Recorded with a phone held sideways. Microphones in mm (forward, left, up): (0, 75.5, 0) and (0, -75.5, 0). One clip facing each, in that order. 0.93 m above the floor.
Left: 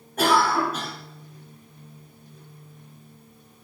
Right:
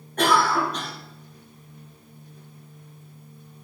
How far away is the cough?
About 4 m.